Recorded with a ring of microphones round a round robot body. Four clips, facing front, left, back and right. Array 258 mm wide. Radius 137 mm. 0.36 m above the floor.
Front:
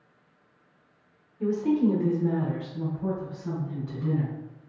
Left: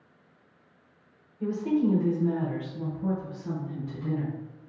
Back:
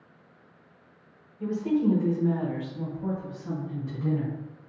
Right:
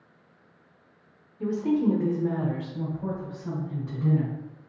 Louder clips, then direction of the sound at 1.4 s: Right 1 dB, front 2 dB; 50° right.